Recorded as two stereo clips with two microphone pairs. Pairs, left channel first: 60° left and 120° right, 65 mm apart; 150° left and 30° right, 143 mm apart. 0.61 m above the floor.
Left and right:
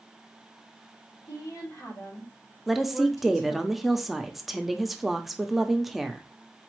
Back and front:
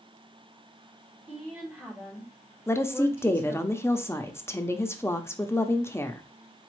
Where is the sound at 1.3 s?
50° left, 2.5 m.